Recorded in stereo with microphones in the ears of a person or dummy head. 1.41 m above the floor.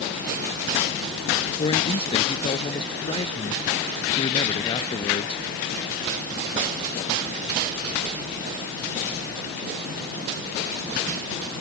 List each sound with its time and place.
1.6 s a man speaking: 30° left (ahead or behind)